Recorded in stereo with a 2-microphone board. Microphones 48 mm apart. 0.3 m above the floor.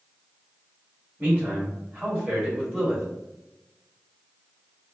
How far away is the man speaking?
About 1.7 m.